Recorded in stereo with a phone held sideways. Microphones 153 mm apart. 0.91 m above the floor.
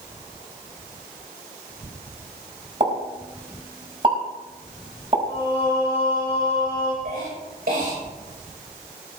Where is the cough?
70° right (ahead or behind), 4 m.